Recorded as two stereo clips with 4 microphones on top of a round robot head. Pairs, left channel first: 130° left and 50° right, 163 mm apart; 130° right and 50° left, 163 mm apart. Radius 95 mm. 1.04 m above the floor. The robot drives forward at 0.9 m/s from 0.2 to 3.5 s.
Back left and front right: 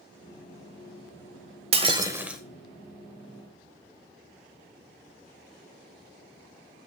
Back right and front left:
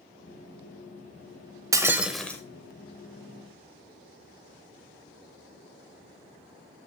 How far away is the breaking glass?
About 0.9 m.